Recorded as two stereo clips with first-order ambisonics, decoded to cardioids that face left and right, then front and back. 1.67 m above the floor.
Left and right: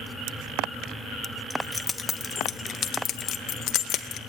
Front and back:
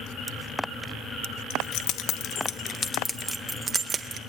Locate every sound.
1.5 s keys jangling: 5° left, 1.2 m; by 4.2 s 120° left, 1.2 m